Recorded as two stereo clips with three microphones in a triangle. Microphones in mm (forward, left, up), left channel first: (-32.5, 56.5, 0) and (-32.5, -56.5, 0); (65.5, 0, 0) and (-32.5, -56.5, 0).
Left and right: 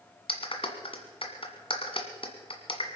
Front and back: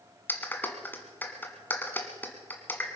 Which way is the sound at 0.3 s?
100° left.